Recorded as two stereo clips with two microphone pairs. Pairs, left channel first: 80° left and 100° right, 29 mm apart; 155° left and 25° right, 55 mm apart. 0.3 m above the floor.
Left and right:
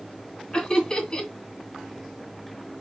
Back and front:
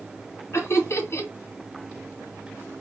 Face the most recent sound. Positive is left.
turn(degrees=140)